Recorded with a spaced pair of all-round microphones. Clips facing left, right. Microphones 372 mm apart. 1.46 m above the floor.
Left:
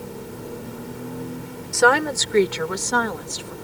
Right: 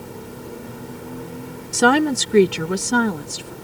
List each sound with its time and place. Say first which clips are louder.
1.7 s a woman speaking: right 3 dB; 45° right (ahead or behind); by 3.5 s 40° right (ahead or behind)